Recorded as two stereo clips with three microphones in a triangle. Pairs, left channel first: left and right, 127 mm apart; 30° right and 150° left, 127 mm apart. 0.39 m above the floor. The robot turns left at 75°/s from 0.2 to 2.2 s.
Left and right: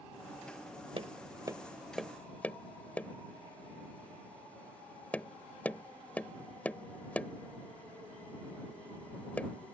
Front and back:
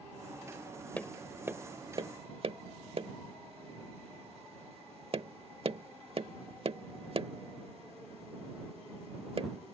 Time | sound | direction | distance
1.0 | tapping | 105° right | ?